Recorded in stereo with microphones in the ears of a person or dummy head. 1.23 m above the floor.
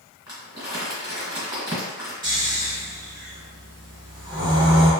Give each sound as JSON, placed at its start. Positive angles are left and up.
{"t": 0.3, "sound": "crumpling", "side_deg": -20, "distance_m": 1.5}
{"t": 2.2, "sound": "snoring", "side_deg": -20, "distance_m": 2.0}